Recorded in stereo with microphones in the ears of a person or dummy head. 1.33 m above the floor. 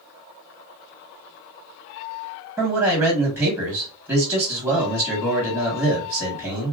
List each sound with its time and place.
2.6 s a man speaking: 10° right (ahead or behind), 1.8 m